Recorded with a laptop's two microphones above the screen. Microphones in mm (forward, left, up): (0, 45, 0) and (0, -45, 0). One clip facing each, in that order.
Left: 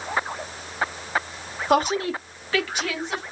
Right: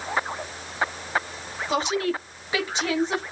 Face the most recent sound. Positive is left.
turn(degrees=-35)  # may be behind; listen again after turning